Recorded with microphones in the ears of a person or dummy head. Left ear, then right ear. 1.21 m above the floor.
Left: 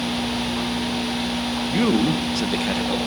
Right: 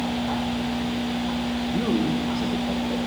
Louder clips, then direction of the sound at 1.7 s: Left 5 dB; 60° left (ahead or behind).